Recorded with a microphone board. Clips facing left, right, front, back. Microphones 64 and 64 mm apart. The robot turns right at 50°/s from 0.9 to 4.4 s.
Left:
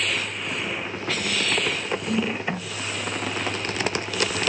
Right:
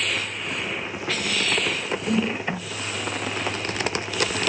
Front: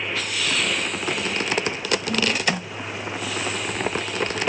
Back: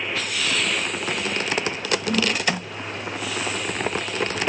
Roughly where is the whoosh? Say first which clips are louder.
Right 2 dB, back 2 dB; behind right.